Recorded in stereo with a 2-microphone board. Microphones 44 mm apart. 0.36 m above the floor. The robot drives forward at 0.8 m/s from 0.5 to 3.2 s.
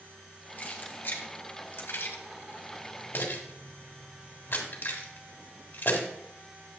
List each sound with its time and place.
0.6 s keys jangling: 40° left (ahead or behind), 1.9 m; by 6.1 s 50° left (ahead or behind), 1.6 m